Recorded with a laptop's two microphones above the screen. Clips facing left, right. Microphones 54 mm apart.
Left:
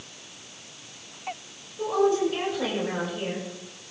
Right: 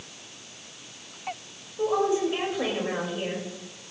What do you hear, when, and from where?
1.8 s a woman speaking: 15° right (ahead or behind), 6 m